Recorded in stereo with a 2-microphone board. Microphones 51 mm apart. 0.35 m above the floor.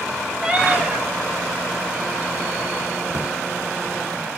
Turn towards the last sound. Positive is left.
turn(degrees=-65)  # may be behind; listen again after turning